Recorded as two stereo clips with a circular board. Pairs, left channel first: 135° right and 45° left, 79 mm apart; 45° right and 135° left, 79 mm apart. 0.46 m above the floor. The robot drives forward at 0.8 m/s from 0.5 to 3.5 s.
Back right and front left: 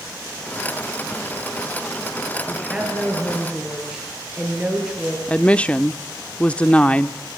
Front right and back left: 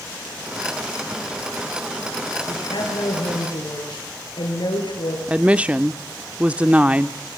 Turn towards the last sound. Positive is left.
turn(degrees=180)